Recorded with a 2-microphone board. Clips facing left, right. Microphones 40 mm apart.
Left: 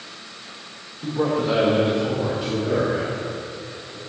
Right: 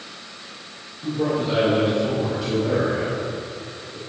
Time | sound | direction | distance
1.0 | a man speaking | 55° left (ahead or behind) | 2 m